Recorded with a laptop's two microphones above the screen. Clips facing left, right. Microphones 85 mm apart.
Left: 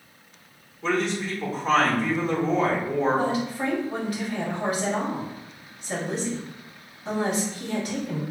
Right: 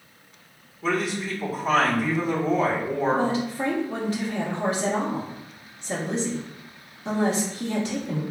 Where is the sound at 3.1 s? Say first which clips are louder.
Right 1 dB; 30° right (ahead or behind), 1.4 m.